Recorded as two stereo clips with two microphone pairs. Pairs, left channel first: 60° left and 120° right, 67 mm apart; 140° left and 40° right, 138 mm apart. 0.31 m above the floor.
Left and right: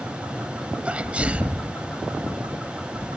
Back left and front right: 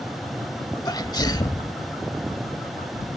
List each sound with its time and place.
0.8 s a sneeze: straight behind, 1.2 m